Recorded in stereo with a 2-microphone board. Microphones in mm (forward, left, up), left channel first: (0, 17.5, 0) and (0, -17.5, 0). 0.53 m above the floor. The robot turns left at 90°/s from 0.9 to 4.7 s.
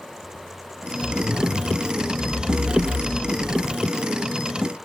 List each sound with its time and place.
1.0 s a zipper: 25° right, 7 m; by 3.8 s 85° left, 7 m